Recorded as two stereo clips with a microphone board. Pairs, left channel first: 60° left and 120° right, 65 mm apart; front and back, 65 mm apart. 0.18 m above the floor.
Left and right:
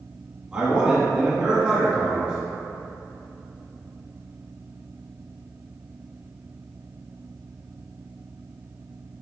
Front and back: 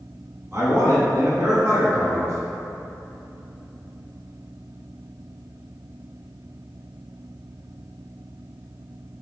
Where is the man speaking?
170° right, 1.1 m.